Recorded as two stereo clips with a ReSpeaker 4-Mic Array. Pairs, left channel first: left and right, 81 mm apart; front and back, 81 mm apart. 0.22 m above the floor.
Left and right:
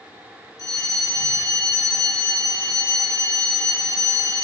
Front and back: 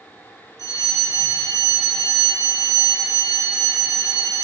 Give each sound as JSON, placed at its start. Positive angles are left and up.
{"t": 0.6, "sound": "a fire alarm", "azimuth_deg": 50, "distance_m": 9.0}